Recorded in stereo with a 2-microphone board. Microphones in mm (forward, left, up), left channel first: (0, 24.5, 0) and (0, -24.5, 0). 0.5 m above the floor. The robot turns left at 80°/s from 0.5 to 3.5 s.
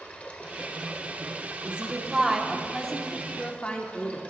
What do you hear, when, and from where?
0.0 s running water: 30° left, 1.1 m; by 4.3 s 150° left, 1.1 m
1.6 s a woman speaking: 25° right (ahead or behind), 1.1 m; by 4.3 s 25° left (ahead or behind), 1.1 m